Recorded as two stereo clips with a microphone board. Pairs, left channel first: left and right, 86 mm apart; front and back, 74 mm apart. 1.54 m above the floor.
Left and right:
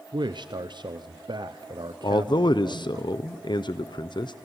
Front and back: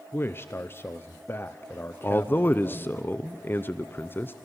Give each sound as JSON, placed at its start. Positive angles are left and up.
{"t": 0.1, "sound": "a man speaking", "azimuth_deg": -60, "distance_m": 0.6}
{"t": 2.0, "sound": "a man speaking", "azimuth_deg": 60, "distance_m": 0.6}